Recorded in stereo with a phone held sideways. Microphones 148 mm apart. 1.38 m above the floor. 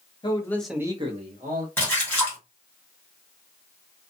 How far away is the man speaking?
About 1.0 m.